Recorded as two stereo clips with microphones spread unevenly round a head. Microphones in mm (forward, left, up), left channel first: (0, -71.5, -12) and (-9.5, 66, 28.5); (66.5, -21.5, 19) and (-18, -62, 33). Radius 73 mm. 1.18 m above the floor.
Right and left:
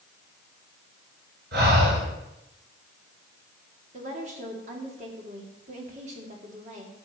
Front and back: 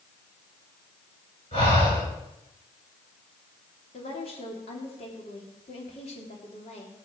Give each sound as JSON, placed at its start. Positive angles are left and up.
{"t": 1.5, "sound": "breathing", "azimuth_deg": 80, "distance_m": 8.0}
{"t": 3.9, "sound": "a woman speaking", "azimuth_deg": 50, "distance_m": 3.0}